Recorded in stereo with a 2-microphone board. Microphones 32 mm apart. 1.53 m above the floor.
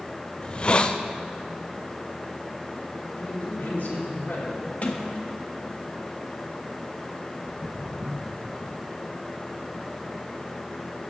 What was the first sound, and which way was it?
A hiss, 30° left (ahead or behind).